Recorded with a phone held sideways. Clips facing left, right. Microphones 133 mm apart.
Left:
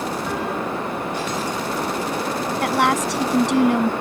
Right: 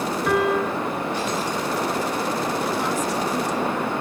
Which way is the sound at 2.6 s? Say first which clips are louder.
Left 4 dB; 85° left.